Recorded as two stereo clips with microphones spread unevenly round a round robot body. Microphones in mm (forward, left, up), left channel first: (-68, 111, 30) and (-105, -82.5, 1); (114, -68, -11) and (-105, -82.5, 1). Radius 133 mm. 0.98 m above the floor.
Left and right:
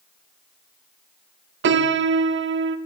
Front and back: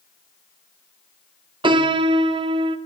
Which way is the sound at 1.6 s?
115° right.